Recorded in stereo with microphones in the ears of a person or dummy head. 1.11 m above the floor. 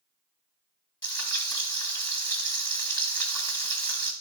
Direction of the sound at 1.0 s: 25° left (ahead or behind).